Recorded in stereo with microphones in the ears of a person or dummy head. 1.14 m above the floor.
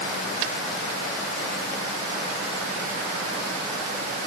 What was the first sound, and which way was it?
Only background noise.